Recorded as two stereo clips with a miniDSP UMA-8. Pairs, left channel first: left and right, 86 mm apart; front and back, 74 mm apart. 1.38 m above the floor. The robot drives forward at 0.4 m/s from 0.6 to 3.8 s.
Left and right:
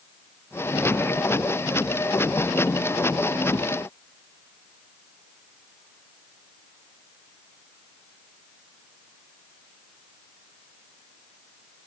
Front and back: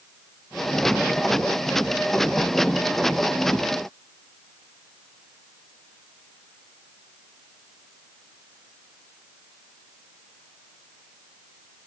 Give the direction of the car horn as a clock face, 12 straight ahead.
No car horn in this recording.